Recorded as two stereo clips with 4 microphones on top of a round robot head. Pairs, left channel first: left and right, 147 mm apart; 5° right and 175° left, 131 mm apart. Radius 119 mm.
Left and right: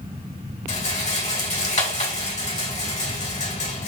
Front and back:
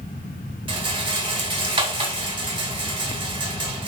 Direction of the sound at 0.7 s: 130° left.